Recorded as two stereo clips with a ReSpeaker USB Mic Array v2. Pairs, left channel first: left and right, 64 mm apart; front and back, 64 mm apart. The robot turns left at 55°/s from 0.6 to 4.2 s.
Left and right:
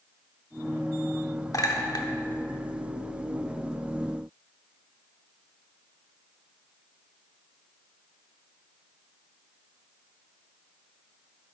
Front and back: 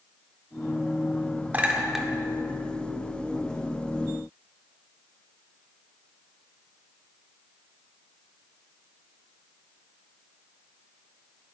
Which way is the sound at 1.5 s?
115° left.